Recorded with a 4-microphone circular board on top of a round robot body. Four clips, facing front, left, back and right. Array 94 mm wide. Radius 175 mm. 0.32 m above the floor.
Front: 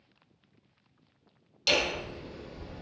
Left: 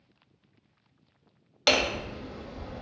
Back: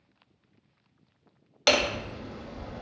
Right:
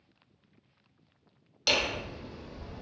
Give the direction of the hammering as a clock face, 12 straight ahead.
7 o'clock.